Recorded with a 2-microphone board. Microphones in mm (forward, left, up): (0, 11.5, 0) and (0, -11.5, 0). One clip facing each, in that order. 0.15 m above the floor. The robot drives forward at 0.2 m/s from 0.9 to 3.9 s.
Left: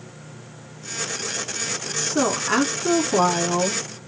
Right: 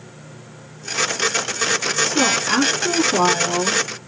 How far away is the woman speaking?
About 1.1 m.